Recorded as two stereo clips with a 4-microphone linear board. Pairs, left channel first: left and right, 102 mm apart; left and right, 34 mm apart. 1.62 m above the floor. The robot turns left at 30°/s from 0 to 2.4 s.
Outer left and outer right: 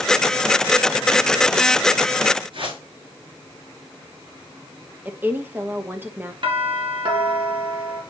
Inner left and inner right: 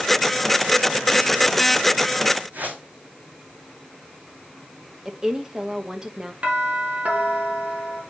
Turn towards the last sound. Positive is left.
turn(degrees=-55)  # may be behind; listen again after turning